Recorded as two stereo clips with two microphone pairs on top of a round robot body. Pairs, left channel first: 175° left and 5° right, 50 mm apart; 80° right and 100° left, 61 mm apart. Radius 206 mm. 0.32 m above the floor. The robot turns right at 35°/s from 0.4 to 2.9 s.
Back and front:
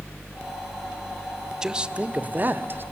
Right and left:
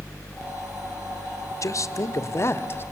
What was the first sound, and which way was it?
A man speaking, 85° right.